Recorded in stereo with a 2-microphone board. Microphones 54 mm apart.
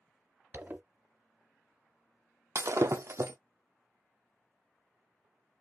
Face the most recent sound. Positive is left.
turn(degrees=-60)  # may be behind; listen again after turning